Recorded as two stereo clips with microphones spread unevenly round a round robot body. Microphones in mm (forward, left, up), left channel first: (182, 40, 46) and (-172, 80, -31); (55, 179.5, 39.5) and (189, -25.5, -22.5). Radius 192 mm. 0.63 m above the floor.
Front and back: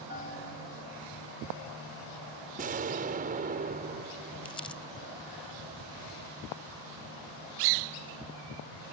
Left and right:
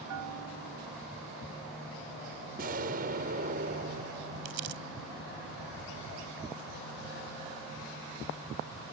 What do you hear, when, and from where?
0.1 s a bell: 75° right
2.6 s an explosion: 120° right
4.5 s crumpling: 85° right